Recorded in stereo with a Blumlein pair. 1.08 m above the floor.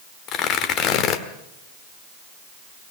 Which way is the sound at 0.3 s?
35° left.